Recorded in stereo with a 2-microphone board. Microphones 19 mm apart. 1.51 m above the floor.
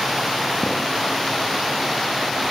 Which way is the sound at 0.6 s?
65° left (ahead or behind).